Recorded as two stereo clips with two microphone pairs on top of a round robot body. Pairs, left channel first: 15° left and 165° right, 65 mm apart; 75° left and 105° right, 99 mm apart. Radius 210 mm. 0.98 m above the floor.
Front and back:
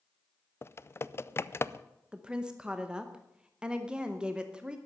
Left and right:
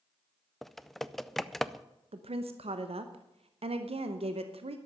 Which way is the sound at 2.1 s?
85° right.